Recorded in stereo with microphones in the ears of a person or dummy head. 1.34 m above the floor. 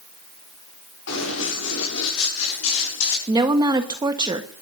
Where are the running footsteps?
70° left (ahead or behind), 8 m; by 3.2 s 75° left (ahead or behind), 7.5 m.